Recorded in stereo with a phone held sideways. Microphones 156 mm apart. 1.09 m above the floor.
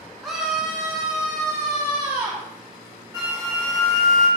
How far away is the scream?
About 0.8 m.